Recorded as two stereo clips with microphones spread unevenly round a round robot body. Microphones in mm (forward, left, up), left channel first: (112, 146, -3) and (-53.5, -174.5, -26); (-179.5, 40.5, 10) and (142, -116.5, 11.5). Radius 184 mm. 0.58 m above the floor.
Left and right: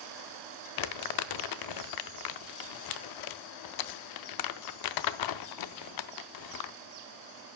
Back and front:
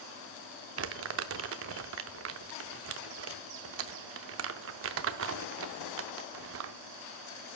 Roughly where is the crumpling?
Ahead left.